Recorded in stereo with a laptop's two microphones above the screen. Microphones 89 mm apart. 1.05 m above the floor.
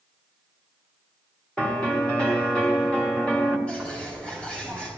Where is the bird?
10° left (ahead or behind), 1.7 m.